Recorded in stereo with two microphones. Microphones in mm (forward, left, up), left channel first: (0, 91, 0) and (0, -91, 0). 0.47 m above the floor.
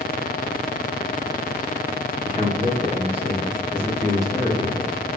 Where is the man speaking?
50° right (ahead or behind), 1.5 m; by 4.9 s 20° left (ahead or behind), 1.1 m.